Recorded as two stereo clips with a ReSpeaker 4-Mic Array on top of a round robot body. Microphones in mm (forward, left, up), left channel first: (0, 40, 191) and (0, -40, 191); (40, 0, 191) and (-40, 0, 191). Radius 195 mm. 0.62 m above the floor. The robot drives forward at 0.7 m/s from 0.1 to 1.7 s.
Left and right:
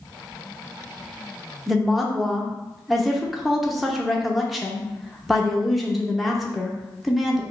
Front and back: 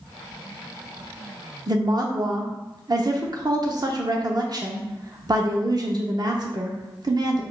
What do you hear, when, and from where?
1.7 s a woman speaking: straight behind, 0.8 m